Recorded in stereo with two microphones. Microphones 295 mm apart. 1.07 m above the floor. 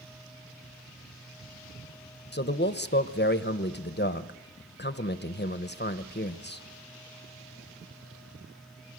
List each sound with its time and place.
2.3 s a man speaking: 35° left (ahead or behind), 0.9 m